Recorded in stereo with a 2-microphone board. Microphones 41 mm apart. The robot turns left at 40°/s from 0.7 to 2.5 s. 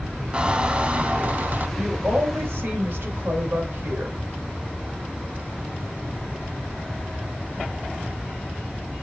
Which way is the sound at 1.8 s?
50° right (ahead or behind).